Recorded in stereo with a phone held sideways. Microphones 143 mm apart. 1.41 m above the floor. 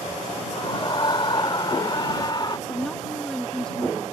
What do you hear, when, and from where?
0.5 s a scream: 35° left (ahead or behind)
2.7 s a woman speaking: 5° left (ahead or behind)